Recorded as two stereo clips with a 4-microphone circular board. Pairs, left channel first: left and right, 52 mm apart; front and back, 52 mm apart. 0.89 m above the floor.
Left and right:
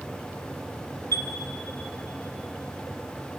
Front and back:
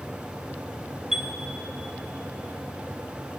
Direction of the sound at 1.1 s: 100° left.